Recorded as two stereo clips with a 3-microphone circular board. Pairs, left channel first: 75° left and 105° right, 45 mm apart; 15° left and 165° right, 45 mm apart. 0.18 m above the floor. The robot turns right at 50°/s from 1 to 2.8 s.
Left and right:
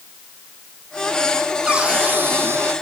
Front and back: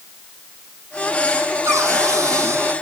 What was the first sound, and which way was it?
A cupboard door, straight behind.